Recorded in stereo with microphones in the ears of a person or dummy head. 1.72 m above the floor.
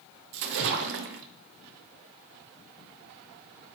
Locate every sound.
0.3 s a splash: 55° right (ahead or behind), 0.6 m